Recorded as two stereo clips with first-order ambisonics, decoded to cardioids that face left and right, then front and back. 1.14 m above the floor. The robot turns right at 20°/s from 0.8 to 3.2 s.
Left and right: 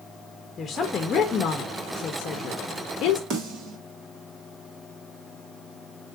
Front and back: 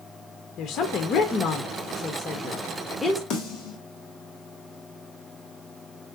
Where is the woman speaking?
30° left, 0.8 m; by 3.2 s 80° left, 0.8 m.